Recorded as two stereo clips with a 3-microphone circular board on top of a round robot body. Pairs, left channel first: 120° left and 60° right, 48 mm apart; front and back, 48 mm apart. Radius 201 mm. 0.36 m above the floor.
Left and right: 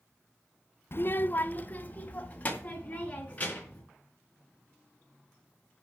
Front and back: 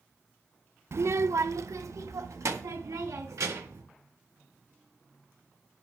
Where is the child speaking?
155° left, 0.6 m; by 3.8 s straight behind, 4.5 m.